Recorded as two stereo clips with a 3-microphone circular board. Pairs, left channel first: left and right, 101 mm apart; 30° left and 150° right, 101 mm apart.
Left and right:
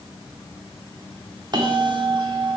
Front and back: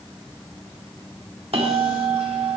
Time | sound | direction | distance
1.5 | a bell | 135° right | 1.3 m